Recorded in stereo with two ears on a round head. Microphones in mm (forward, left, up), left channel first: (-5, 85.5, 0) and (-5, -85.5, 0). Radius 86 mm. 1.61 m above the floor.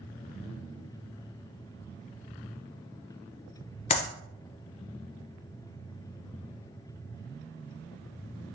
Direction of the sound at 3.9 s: 35° left (ahead or behind).